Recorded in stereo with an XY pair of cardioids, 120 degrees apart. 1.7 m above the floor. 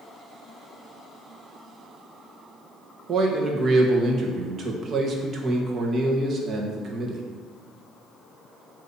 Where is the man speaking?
45° right, 1.5 m.